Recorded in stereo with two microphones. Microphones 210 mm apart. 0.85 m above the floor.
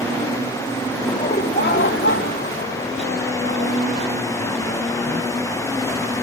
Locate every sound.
1.1 s laughter: 25° left (ahead or behind); by 3.8 s 80° left